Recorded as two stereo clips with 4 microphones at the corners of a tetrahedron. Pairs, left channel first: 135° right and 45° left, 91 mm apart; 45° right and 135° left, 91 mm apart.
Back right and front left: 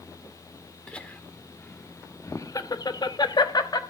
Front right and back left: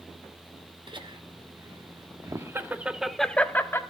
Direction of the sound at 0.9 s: 150° left.